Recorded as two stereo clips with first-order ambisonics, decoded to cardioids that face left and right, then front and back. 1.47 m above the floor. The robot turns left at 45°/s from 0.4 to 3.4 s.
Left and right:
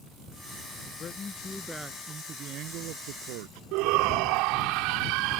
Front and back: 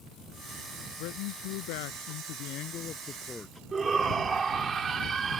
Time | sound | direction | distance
1.0 | a man speaking | 30° left | ?
3.7 | a shout | 110° right | ?